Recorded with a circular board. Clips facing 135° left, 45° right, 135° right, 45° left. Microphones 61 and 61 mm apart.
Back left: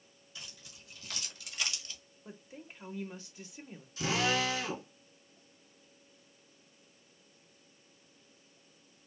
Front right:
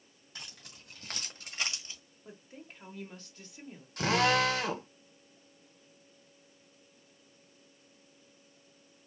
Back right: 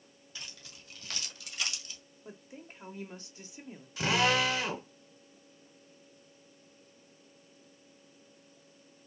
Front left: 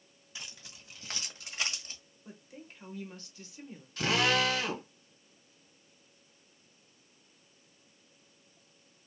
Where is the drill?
50° right, 1.3 m.